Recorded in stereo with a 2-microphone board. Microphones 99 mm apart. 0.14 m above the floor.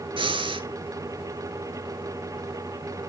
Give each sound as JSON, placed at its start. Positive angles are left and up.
{"t": 0.2, "sound": "breathing", "side_deg": -60, "distance_m": 0.8}